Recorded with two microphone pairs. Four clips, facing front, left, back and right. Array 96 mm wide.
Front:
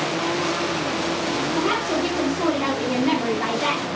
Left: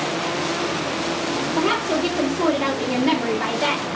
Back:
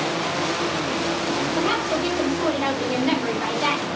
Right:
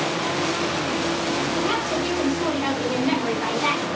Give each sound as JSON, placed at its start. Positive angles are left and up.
{"t": 1.6, "sound": "a woman speaking", "azimuth_deg": 80, "distance_m": 0.9}